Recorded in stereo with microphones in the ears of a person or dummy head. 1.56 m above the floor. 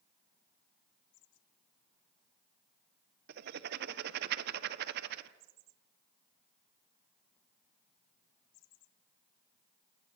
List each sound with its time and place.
3.3 s writing: 55° right (ahead or behind), 1.1 m